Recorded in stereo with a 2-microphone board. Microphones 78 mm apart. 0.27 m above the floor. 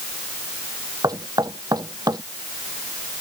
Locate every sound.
1.0 s knocking: 55° right (ahead or behind)